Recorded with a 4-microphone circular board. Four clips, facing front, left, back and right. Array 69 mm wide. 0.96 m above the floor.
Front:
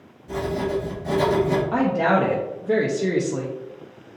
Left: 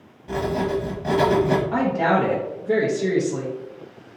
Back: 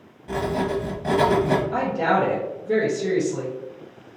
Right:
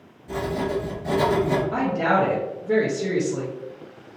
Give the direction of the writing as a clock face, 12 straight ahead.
7 o'clock.